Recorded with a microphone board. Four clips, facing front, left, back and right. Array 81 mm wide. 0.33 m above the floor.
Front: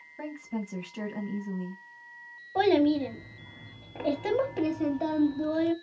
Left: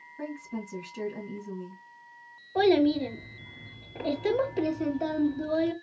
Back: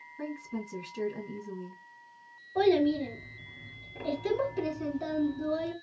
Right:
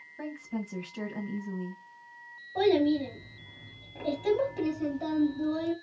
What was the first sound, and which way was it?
A woman speaking, 15° right.